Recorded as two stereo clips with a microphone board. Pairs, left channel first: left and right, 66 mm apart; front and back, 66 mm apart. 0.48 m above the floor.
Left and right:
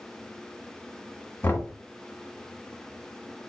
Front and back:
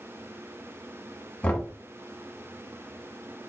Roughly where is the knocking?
Ahead left.